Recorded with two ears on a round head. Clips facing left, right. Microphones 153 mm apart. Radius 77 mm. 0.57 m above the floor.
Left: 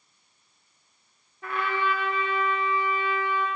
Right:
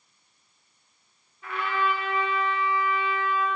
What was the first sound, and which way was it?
A trumpet, 40° left (ahead or behind).